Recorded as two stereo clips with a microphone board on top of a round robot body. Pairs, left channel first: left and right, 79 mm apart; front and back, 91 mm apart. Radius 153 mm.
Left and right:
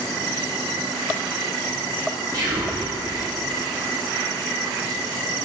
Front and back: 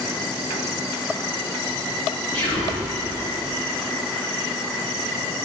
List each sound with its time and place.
2.3 s whispering: 50° right, 2.5 m